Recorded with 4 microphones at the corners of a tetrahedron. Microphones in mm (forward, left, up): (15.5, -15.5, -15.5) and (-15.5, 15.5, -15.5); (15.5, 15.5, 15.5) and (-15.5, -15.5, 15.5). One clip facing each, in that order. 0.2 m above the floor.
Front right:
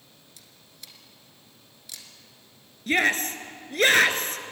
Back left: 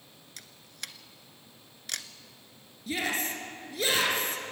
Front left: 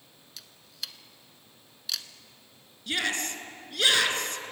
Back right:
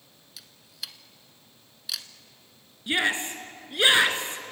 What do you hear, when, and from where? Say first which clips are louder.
0.4 s a camera shutter: back left 9 dB, even; 140° left, 1.2 m
2.9 s a shout: front right 8 dB, back right 4 dB; 70° right, 2.5 m